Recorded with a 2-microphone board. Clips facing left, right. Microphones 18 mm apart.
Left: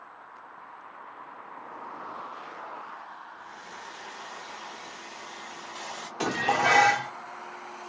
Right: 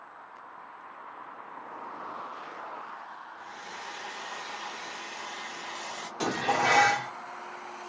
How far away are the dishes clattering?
About 0.7 m.